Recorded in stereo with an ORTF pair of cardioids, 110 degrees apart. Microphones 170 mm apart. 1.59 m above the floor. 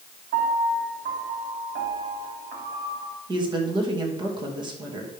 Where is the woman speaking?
25° right, 2.5 m.